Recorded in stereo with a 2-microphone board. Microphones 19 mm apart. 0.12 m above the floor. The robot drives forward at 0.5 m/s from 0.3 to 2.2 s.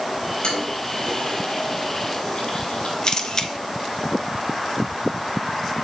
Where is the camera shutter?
35° left (ahead or behind), 1.0 m.